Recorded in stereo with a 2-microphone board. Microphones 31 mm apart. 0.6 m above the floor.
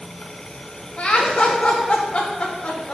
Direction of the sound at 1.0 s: 35° left (ahead or behind).